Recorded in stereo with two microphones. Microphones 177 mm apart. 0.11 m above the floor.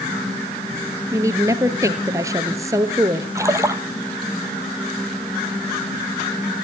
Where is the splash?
15° right (ahead or behind), 1.1 m.